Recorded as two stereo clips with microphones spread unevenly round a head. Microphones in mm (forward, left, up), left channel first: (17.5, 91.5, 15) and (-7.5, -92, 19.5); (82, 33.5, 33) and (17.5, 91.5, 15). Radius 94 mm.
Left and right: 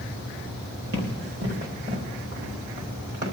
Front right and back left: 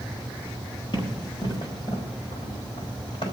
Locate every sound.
0.9 s running footsteps: 75° right, 3.5 m; by 3.3 s 80° right, 5 m